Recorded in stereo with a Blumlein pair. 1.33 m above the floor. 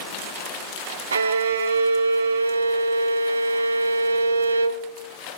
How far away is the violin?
About 0.7 m.